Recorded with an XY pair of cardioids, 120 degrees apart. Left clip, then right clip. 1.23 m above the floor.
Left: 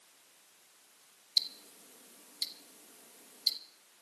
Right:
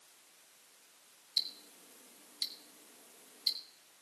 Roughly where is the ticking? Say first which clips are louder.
Left 4 dB; ahead left.